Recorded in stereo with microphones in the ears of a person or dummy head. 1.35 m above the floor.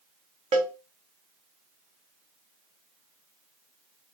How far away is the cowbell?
About 1.0 m.